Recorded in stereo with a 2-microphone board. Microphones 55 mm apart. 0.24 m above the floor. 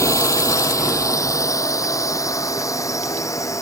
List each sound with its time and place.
0.0 s a drone: 70° left (ahead or behind); by 3.6 s 75° left (ahead or behind)